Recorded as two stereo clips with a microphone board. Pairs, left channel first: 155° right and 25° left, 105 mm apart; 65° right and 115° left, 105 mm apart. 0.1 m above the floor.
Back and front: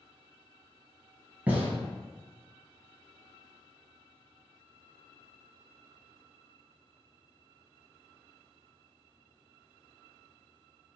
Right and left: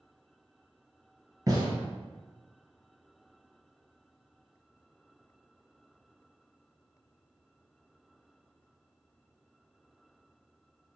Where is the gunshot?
85° left, 1.2 m.